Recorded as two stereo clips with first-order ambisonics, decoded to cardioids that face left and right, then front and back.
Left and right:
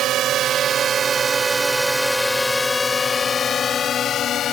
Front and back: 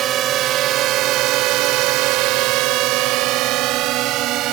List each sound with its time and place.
0.0 s a drone: 135° right; by 4.5 s 145° left